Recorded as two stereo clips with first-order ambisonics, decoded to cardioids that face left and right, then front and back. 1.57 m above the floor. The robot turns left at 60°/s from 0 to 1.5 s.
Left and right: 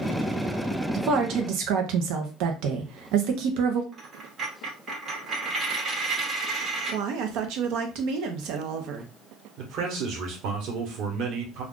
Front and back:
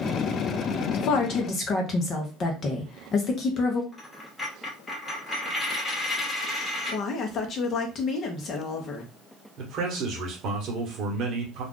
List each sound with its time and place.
0.9 s a woman speaking: 25° right, 0.7 m; by 3.8 s 60° right, 0.7 m
3.9 s a dropped coin: 70° right, 1.0 m
6.9 s a woman speaking: 60° right, 0.8 m
9.6 s a man speaking: 130° right, 1.1 m